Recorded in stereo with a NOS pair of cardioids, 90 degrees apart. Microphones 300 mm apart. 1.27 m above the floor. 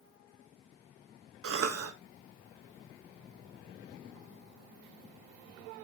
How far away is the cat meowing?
No cat meowing in this recording.